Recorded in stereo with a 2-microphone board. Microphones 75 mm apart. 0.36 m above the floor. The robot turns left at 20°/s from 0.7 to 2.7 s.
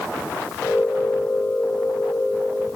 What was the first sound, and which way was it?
Only background noise.